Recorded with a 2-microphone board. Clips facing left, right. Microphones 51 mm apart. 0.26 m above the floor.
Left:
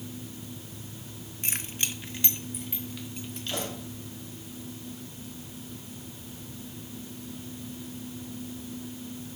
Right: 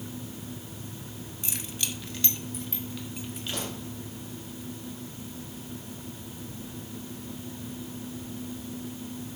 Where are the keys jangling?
50° left (ahead or behind), 1.2 m; by 3.7 s 10° right (ahead or behind), 2.5 m.